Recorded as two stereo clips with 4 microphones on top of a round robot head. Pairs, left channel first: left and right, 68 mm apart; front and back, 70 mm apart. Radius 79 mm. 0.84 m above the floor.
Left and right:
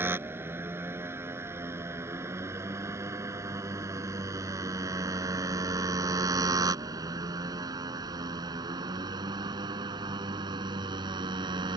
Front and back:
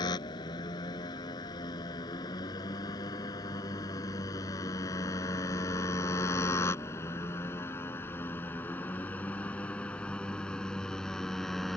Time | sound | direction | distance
0.0 | a motorcycle | 35° right | ?